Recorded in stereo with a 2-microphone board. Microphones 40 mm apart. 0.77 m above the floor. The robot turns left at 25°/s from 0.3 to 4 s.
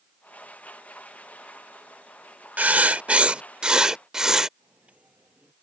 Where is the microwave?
35° right (ahead or behind).